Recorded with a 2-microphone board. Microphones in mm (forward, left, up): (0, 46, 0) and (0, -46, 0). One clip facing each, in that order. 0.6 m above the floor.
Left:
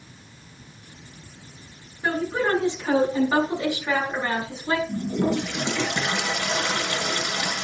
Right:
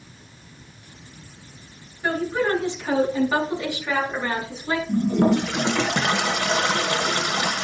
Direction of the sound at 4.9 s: 65° right (ahead or behind).